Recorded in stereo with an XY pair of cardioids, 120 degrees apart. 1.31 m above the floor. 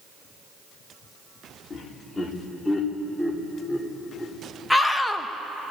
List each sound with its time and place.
1.7 s laughter: 25° left, 3.5 m; by 4.3 s 5° right, 5 m
4.7 s a scream: 5° left, 1.4 m